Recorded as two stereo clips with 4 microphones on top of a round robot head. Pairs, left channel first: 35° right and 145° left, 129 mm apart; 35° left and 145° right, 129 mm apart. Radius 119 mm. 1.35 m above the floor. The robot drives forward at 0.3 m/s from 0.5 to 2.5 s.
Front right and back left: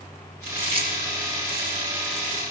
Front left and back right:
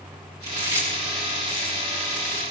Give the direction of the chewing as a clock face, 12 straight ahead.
7 o'clock.